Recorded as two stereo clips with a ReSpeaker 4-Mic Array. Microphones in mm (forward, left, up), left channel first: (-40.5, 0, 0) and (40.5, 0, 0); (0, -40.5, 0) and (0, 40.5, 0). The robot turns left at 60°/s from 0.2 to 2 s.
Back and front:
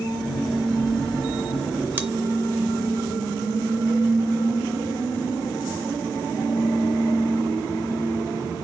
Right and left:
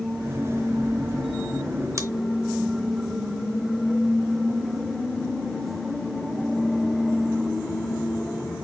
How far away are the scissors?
About 0.6 m.